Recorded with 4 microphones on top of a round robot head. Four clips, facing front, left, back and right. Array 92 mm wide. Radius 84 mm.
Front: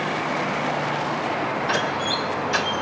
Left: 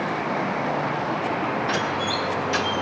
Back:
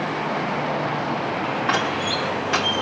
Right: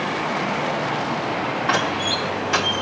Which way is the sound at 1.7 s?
145° right.